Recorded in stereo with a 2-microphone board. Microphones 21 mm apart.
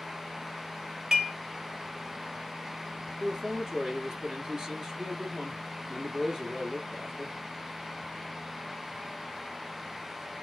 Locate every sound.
1.1 s dishes clattering: 25° right (ahead or behind), 1.7 m
3.2 s a man speaking: 30° right (ahead or behind), 2.5 m